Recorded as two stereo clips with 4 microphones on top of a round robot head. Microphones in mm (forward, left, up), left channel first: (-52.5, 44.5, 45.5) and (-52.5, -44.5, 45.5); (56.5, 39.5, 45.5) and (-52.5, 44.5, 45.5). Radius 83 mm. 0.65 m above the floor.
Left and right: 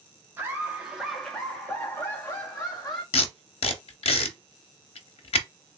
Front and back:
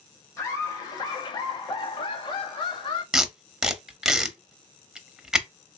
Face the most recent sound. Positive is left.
turn(degrees=90)